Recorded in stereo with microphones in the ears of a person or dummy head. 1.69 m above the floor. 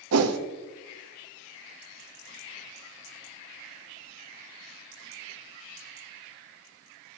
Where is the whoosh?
85° right, 0.9 m.